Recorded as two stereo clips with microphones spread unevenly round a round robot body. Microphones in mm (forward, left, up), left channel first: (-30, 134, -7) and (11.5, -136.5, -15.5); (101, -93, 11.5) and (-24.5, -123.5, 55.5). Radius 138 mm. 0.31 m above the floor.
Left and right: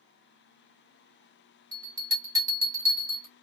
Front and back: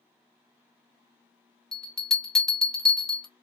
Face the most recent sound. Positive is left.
turn(degrees=-20)